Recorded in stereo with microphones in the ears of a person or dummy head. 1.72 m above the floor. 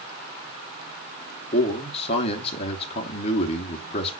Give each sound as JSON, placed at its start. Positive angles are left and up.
{"t": 1.5, "sound": "a man speaking", "side_deg": 35, "distance_m": 1.0}